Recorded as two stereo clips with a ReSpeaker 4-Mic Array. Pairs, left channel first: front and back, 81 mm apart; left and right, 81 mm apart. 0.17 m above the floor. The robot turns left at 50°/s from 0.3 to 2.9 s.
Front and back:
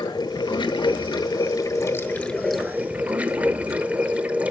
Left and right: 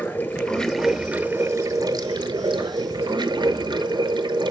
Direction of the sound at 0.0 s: 25° left.